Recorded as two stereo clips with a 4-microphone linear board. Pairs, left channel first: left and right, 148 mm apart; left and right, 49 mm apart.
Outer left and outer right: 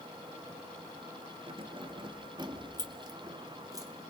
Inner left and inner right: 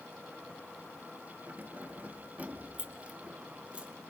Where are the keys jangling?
40° right (ahead or behind), 1.6 m; by 3.9 s 25° right (ahead or behind), 2.5 m.